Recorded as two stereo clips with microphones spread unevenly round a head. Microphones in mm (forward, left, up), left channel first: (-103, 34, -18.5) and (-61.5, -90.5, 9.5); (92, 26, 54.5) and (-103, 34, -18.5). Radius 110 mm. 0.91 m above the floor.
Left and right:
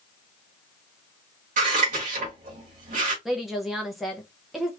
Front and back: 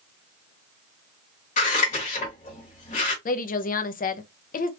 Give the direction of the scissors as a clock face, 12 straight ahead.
2 o'clock.